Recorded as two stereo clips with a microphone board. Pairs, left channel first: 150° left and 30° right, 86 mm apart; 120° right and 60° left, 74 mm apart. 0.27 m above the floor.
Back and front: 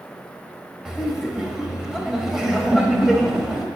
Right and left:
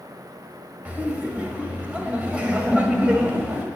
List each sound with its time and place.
0.8 s laughter: 45° left, 1.5 m